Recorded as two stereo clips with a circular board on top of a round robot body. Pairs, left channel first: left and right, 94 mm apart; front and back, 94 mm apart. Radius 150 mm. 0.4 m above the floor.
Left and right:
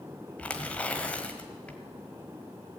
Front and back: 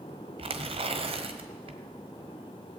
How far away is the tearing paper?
About 1.3 m.